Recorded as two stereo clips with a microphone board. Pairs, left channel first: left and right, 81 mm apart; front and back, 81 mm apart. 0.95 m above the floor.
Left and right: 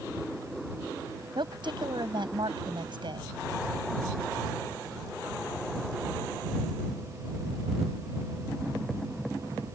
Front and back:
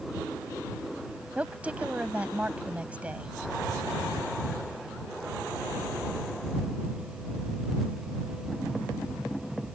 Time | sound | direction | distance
1.4 | a woman speaking | 105° right | ?